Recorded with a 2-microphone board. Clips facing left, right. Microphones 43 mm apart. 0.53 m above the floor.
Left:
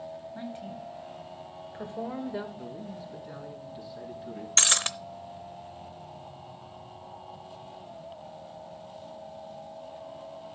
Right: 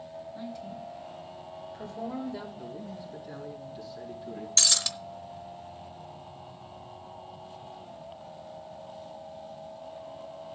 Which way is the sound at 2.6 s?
20° left (ahead or behind).